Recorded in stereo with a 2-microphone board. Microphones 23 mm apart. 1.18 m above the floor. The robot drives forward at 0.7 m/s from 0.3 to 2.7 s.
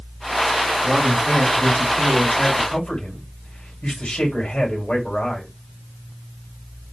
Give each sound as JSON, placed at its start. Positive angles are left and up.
{"t": 0.8, "sound": "a man speaking", "side_deg": 70, "distance_m": 2.5}